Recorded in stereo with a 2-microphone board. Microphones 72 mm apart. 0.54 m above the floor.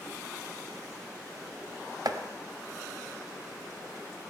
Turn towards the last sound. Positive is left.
turn(degrees=-60)  # may be behind; listen again after turning